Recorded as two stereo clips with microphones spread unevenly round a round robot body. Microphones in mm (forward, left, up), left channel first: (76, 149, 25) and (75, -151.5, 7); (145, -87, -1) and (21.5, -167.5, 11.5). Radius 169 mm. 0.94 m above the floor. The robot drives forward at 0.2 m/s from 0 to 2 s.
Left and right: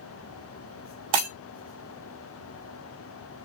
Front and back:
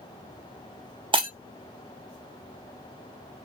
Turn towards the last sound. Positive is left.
turn(degrees=-125)